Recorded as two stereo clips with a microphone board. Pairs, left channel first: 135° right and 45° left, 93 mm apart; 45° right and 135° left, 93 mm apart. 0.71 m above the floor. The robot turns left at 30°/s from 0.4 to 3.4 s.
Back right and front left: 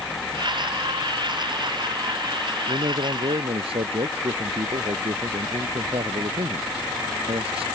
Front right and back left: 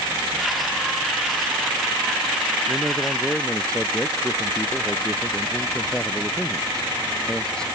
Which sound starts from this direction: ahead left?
A man speaking, at 2.7 s.